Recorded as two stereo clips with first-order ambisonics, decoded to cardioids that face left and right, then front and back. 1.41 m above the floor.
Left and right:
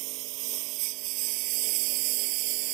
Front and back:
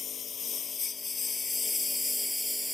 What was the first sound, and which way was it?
A lawn mower, 65° right.